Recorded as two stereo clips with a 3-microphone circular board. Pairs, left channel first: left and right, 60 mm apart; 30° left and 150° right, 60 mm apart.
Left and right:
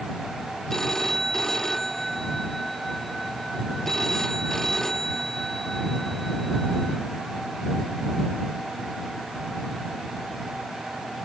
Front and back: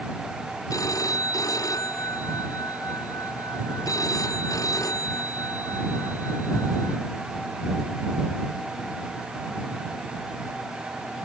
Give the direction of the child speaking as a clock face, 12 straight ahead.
No child speaking in this recording.